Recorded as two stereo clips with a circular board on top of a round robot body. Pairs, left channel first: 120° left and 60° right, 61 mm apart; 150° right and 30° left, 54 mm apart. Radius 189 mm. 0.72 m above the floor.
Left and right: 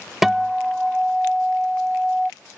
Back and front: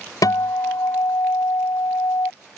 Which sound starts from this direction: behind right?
A guitar, at 0.2 s.